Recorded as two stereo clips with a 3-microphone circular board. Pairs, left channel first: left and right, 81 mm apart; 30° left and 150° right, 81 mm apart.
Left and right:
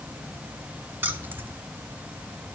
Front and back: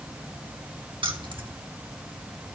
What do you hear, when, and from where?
1.0 s keys jangling: 155° right, 1.7 m